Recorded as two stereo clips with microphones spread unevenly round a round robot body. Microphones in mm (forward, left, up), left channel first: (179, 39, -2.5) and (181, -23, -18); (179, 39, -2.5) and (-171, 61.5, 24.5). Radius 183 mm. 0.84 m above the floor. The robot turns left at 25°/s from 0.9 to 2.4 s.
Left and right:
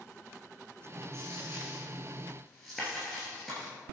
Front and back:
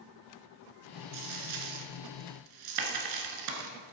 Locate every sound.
1.1 s a dropped coin: 155° right, 1.5 m; by 3.7 s 170° left, 1.5 m